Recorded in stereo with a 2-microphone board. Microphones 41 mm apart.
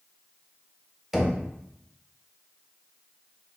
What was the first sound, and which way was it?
Knocking, 5° right (ahead or behind).